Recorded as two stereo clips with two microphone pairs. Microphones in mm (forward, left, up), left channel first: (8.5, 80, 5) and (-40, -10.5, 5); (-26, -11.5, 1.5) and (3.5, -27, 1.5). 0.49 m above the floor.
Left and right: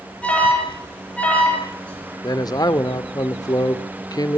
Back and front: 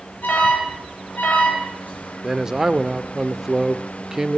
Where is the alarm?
140° left, 10 m.